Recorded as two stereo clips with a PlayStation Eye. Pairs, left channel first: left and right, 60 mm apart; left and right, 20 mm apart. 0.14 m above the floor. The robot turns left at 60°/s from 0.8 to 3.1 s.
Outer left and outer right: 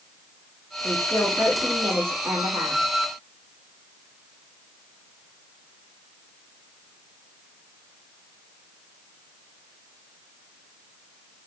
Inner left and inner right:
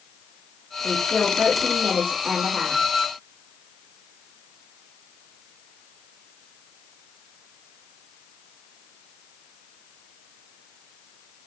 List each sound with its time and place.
0.8 s a woman speaking: 40° left, 6 m; by 2.8 s 85° right, 6 m